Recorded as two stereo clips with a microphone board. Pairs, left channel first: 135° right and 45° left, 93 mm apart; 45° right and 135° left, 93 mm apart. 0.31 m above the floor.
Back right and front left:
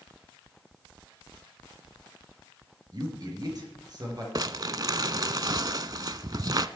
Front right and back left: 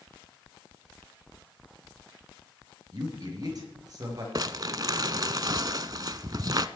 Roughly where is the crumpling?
Left.